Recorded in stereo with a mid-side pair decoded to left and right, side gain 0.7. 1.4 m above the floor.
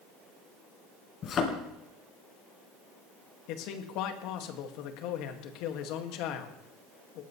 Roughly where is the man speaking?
Ahead left.